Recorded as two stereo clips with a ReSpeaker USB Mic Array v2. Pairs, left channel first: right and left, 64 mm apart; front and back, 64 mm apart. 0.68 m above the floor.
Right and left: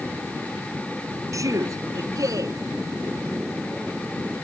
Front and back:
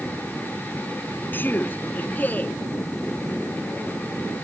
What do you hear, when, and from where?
1.3 s a man speaking: 60° left; by 2.6 s 65° left